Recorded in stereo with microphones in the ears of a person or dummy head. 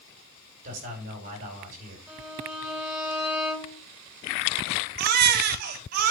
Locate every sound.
0.6 s a man speaking: 45° right (ahead or behind), 5.5 m
2.1 s a violin: 5° right (ahead or behind), 3 m
5.0 s a baby crying: 50° right (ahead or behind), 1.4 m